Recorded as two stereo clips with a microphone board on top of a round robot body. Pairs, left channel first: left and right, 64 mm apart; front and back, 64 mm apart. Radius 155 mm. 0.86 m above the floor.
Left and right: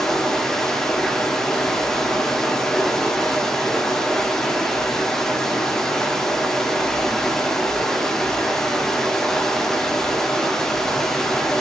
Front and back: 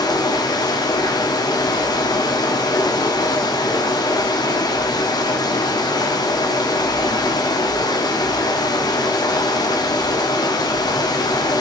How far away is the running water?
About 1.4 m.